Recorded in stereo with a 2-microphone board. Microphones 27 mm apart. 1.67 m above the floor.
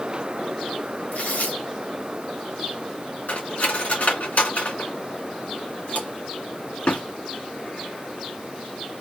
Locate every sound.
1.1 s tearing paper: 75° left (ahead or behind), 1.6 m
3.3 s cutlery clinking: 65° left (ahead or behind), 2 m